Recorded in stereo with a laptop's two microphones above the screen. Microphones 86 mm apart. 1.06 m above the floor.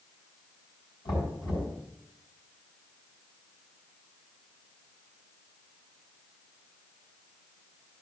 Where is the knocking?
65° left (ahead or behind), 5 m.